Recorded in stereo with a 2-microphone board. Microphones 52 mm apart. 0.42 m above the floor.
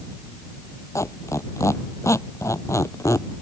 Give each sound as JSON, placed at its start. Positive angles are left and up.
{"t": 0.9, "sound": "a squeak", "side_deg": 70}